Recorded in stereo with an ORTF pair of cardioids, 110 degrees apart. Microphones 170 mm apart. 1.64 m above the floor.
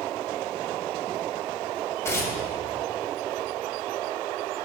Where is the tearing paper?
15° left, 3 m.